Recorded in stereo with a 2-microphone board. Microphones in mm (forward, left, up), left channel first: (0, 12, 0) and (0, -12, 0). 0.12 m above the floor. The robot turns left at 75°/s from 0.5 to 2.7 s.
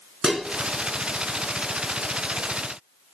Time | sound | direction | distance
0.2 | dishes clattering | 20° right (ahead or behind) | 0.7 m